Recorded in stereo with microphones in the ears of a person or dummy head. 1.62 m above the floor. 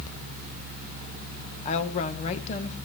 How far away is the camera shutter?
No camera shutter in this recording.